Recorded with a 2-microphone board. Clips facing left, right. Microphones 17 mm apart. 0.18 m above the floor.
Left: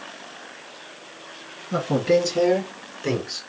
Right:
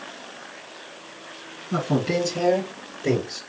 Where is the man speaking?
5° right (ahead or behind), 2 m; by 3.4 s 35° left (ahead or behind), 2.5 m.